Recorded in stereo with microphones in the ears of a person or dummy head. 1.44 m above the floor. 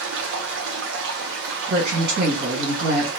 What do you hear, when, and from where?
0.0 s running water: 65° right (ahead or behind), 0.7 m
1.7 s a woman speaking: 55° right (ahead or behind), 1.7 m